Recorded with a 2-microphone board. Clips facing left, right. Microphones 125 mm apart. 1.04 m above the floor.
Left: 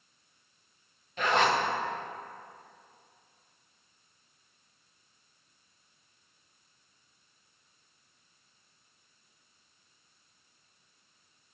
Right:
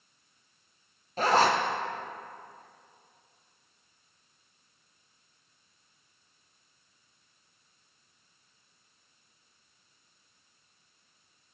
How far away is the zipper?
About 0.7 m.